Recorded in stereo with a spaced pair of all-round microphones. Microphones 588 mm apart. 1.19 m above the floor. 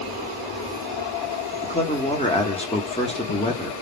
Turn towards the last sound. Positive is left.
turn(degrees=10)  # may be behind; listen again after turning